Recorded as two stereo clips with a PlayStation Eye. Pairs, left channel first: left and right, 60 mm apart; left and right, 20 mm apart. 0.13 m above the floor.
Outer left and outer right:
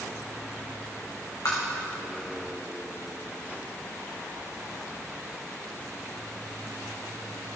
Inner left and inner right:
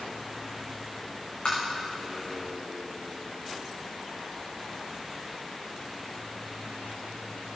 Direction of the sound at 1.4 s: 70° left (ahead or behind).